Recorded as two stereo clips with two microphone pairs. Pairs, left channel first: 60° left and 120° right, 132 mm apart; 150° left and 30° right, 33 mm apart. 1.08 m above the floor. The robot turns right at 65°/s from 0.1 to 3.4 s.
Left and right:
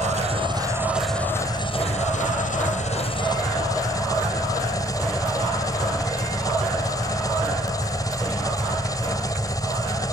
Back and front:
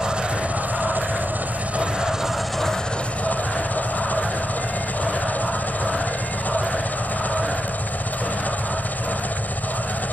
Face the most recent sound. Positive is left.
turn(degrees=125)